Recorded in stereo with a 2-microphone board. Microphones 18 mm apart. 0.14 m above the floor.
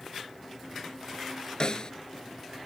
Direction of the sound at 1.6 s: 50° left (ahead or behind).